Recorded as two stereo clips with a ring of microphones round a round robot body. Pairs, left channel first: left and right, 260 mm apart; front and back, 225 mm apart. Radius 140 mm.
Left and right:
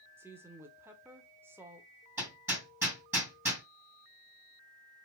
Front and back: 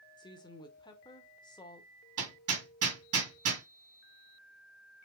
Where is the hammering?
170° right, 2.5 m.